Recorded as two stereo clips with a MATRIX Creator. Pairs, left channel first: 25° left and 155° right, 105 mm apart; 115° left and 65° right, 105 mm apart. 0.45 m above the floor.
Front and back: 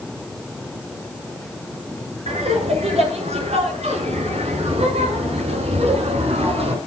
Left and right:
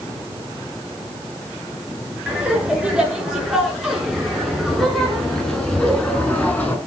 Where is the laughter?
150° right, 8 m; by 6.8 s 175° right, 6 m.